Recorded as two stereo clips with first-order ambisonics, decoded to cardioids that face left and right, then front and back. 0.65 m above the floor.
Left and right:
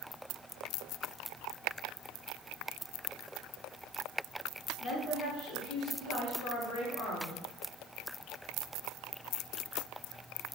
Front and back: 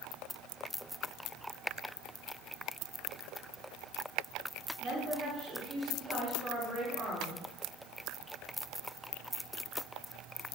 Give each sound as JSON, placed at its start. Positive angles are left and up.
{"t": 4.8, "sound": "a woman speaking", "azimuth_deg": 125, "distance_m": 1.7}